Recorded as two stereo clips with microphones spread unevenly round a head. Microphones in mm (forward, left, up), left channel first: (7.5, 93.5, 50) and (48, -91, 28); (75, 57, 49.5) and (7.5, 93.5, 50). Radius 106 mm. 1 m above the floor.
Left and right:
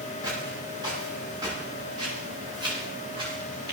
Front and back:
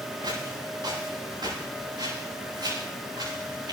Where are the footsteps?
150° right, 9 m; by 3.7 s 145° right, 12.5 m.